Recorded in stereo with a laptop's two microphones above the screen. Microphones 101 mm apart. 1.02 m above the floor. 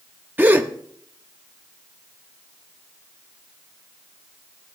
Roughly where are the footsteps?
No footsteps in this recording.